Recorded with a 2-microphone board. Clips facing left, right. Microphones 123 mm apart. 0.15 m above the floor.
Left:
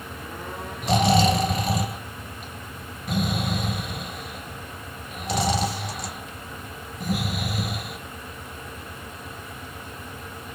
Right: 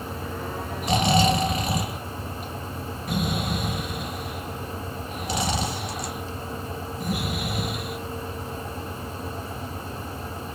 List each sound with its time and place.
0.8 s snoring: centre (ahead or behind), 1.6 m